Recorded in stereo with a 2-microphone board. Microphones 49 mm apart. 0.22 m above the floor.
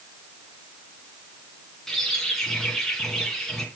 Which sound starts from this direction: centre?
A bird, at 1.9 s.